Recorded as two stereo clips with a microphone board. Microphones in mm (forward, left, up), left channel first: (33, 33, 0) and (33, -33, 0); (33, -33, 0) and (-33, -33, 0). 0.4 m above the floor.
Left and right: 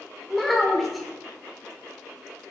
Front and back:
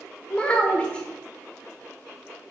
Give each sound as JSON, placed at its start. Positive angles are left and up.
{"t": 0.3, "sound": "a child speaking", "azimuth_deg": 0, "distance_m": 0.6}